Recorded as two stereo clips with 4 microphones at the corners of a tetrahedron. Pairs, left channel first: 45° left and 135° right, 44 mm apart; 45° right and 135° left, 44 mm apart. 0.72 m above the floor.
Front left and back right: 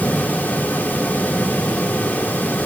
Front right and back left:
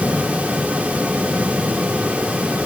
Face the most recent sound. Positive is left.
No sound to turn to.